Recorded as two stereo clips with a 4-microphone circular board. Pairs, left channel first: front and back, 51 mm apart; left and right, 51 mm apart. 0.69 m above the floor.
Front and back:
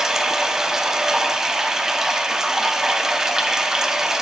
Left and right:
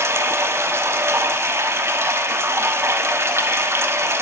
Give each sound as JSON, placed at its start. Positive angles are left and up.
{"t": 0.0, "sound": "running water", "azimuth_deg": -105, "distance_m": 0.7}